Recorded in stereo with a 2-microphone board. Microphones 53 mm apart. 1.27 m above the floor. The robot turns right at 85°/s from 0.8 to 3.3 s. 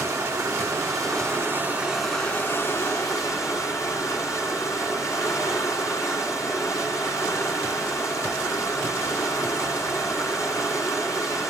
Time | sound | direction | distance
0.0 | running water | 110° right | 9.5 m